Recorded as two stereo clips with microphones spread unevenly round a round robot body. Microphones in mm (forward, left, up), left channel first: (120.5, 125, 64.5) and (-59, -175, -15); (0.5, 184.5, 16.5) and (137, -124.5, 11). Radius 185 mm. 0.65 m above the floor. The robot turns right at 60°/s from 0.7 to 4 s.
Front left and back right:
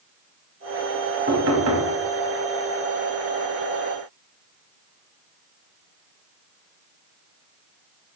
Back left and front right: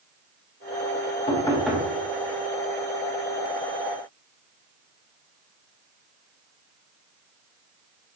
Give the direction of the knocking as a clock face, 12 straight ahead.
6 o'clock.